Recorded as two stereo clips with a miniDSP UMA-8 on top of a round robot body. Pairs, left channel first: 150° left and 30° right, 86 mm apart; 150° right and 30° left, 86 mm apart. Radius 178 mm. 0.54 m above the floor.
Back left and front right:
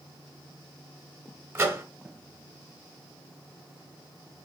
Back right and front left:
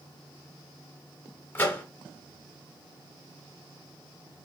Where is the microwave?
85° right, 0.9 m.